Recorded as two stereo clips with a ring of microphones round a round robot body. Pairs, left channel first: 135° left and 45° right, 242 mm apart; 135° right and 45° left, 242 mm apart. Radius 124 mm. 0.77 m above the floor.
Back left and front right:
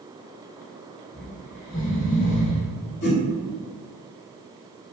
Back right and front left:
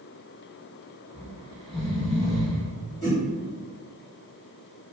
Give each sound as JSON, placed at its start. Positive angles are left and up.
{"t": 1.1, "sound": "snoring", "azimuth_deg": 135, "distance_m": 0.7}
{"t": 3.0, "sound": "a whoosh", "azimuth_deg": 150, "distance_m": 1.2}